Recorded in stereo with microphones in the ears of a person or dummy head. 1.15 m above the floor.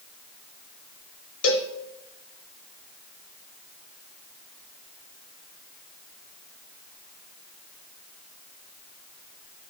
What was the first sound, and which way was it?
A cowbell, 75° left (ahead or behind).